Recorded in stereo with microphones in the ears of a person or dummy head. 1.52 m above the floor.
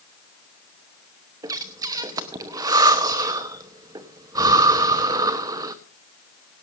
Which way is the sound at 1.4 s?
20° right (ahead or behind).